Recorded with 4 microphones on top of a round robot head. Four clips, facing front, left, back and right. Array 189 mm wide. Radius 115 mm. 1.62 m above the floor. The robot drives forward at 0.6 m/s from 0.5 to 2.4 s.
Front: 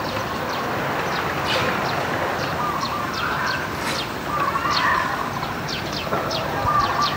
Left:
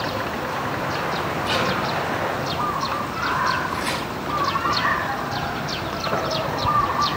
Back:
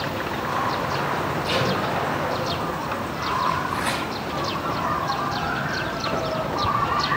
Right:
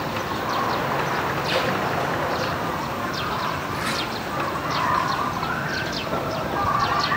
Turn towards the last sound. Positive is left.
turn(degrees=165)